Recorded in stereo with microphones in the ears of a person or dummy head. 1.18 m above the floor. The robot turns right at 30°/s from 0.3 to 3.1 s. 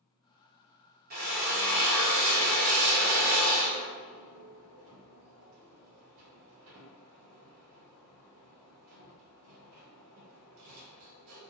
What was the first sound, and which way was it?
A drill, 50° right (ahead or behind).